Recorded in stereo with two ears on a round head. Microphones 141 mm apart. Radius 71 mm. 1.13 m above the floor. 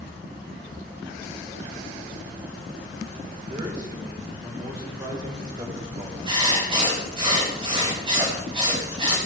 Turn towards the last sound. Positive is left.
turn(degrees=-35)  # may be behind; listen again after turning